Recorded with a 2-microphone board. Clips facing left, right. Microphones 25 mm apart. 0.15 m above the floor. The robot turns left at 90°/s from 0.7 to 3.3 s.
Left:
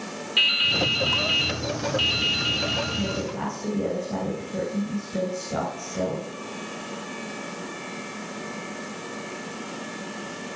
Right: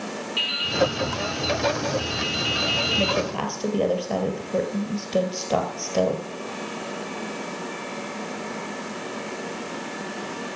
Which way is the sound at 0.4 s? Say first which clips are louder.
Left 3 dB; 155° left.